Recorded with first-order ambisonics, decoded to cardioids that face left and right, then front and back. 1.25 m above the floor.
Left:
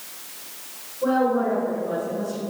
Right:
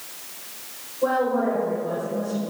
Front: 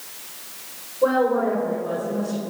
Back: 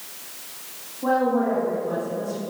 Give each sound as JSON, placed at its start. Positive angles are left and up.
{"t": 1.0, "sound": "a woman speaking", "azimuth_deg": 0, "distance_m": 4.5}